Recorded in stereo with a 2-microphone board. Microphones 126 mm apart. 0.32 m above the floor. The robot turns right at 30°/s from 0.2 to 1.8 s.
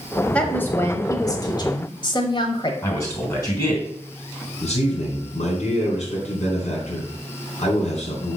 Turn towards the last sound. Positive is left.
turn(degrees=55)  # may be behind; listen again after turning